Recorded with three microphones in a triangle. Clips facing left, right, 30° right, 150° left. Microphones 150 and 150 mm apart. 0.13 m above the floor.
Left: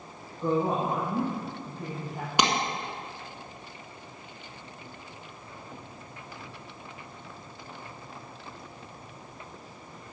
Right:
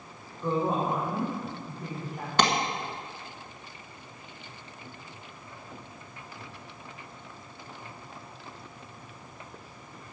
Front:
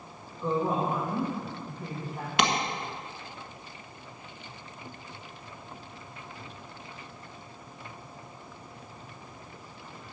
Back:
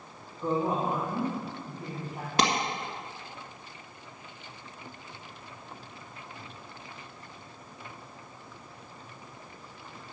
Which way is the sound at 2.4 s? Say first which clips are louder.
Right 1 dB, even; 160° left.